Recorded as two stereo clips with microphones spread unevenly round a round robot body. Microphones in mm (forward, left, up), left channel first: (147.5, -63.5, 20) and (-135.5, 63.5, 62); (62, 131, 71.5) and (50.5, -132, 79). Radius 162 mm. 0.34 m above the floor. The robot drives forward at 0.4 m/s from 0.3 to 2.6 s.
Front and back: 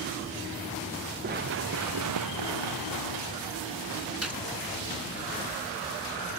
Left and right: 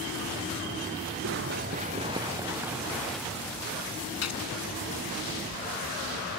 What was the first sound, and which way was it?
Running footsteps, 140° right.